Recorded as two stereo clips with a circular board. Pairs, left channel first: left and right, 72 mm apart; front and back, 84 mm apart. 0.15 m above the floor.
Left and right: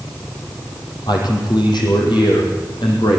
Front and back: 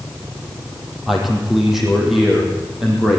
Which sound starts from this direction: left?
A man speaking, at 1.1 s.